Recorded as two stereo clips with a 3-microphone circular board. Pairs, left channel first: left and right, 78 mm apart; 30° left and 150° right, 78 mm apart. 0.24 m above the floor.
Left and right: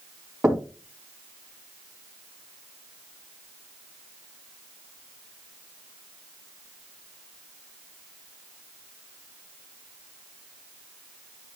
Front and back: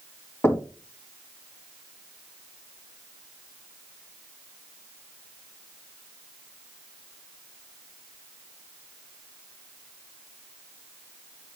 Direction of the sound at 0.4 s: 20° right.